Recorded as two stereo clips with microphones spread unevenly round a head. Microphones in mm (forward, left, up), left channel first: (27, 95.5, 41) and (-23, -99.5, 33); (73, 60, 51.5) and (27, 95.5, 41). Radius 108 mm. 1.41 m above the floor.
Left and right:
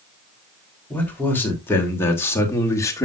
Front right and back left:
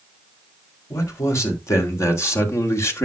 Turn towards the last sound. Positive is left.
turn(degrees=0)